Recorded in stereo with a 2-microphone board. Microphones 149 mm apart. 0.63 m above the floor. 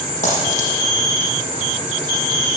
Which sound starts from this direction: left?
A dropped coin, at 0.2 s.